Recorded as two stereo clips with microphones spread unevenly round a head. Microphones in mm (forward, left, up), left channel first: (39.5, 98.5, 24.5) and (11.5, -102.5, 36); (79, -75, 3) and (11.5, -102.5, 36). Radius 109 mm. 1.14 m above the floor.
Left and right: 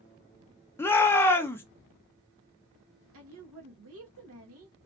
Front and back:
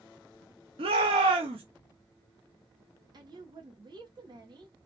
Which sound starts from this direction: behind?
A shout, at 0.8 s.